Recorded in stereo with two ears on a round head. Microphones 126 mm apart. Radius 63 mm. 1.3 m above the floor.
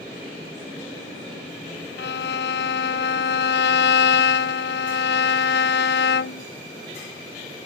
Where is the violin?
80° left.